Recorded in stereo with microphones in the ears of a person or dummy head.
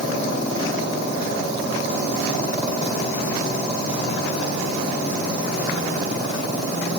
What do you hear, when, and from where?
Only background noise.